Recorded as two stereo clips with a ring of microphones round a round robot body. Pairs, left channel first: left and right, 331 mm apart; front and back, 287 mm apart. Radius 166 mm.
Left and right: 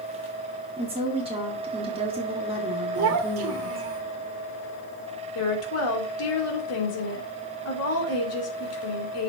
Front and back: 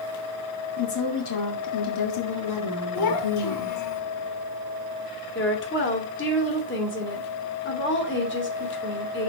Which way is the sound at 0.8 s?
20° right.